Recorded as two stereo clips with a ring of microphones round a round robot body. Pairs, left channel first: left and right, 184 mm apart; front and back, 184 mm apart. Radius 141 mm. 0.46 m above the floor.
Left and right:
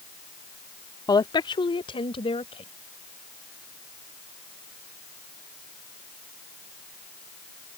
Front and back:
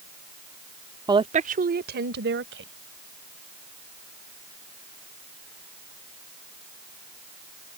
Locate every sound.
1.1 s a woman speaking: 135° left; by 2.7 s 155° left